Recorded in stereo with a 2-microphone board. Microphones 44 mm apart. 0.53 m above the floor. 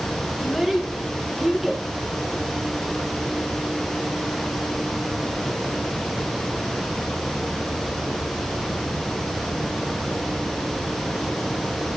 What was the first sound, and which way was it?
A child speaking, 5° right (ahead or behind).